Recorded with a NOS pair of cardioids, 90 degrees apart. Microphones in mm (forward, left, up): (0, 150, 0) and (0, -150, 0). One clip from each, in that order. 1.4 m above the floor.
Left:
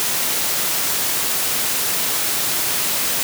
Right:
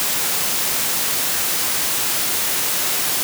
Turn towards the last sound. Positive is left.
No sound to turn to.